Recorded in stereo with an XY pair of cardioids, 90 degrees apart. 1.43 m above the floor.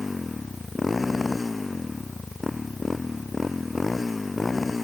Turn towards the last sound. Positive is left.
turn(degrees=25)